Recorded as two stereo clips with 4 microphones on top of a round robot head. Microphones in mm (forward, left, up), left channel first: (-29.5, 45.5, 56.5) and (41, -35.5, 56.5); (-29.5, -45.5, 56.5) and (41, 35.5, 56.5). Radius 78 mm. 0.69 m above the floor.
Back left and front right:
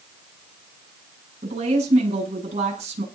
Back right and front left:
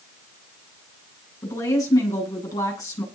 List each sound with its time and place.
1.4 s a woman speaking: 70° right, 9 m